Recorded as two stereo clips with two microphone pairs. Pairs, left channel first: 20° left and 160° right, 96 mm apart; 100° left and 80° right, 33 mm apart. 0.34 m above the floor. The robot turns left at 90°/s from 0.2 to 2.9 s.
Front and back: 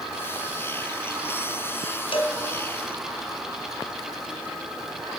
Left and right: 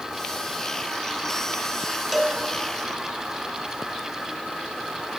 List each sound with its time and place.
2.1 s a cowbell: 5° left, 1.0 m; by 2.4 s 15° right, 1.0 m